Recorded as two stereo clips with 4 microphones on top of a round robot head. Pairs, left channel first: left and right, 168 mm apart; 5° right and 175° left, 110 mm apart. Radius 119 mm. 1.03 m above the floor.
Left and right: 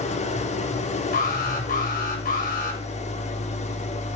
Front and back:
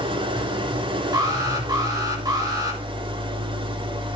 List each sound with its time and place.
0.0 s an engine running: 140° left, 2.5 m
1.1 s an alarm: 125° left, 7 m